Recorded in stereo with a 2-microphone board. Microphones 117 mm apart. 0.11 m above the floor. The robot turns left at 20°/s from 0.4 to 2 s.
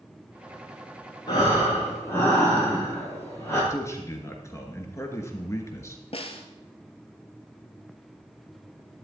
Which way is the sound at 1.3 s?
35° left (ahead or behind).